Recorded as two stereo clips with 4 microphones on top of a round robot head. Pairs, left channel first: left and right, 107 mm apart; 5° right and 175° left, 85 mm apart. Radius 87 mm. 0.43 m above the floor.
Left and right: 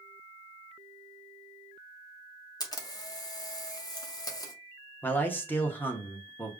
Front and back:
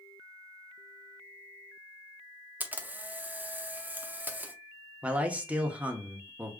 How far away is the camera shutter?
About 0.9 m.